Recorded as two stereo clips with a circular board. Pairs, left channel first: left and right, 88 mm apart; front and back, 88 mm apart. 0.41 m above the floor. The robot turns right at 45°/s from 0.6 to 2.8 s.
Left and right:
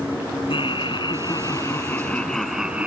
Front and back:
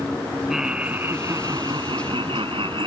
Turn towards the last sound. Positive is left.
turn(degrees=-165)